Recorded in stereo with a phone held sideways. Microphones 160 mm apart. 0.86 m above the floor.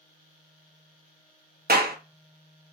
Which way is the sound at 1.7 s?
80° right.